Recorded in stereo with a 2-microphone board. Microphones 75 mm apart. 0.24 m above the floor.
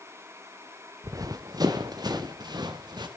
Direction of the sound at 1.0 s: 50° right (ahead or behind).